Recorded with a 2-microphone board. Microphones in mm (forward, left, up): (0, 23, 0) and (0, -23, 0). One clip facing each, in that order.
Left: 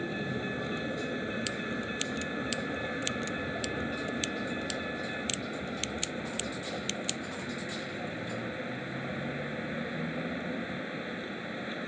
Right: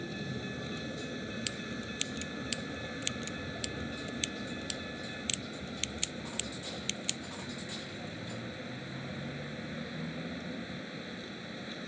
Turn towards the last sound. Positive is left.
turn(degrees=25)  # may be behind; listen again after turning